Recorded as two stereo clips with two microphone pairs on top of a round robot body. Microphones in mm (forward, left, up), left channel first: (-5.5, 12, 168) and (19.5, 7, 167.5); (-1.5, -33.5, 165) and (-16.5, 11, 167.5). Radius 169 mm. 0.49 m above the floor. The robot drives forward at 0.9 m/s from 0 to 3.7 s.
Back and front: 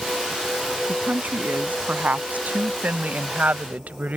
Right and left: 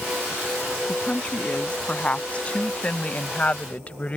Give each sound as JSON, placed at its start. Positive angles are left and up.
{"t": 0.9, "sound": "a woman speaking", "azimuth_deg": -5}